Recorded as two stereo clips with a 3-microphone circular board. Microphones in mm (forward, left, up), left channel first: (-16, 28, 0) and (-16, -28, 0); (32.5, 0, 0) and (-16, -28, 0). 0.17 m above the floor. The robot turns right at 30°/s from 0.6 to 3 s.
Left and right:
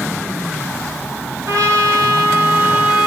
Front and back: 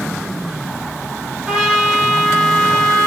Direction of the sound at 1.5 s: 70° right.